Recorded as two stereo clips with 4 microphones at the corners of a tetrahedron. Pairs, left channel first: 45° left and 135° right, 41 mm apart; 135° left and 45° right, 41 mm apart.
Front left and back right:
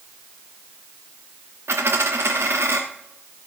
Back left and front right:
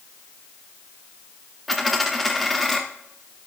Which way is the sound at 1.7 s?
135° right.